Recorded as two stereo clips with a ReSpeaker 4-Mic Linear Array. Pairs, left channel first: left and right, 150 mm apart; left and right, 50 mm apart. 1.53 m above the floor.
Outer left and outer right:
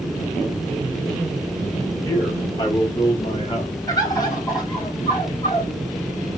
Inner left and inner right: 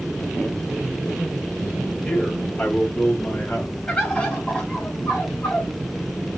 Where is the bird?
25° left (ahead or behind), 2.5 m.